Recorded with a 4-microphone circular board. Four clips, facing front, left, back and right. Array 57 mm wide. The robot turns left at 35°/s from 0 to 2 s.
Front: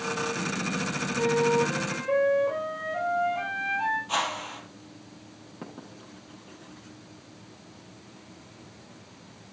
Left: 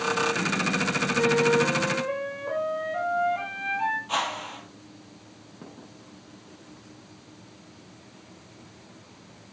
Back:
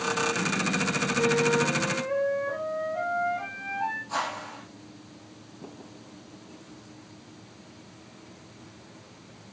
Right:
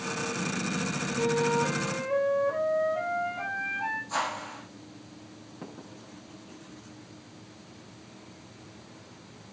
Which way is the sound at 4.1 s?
60° left.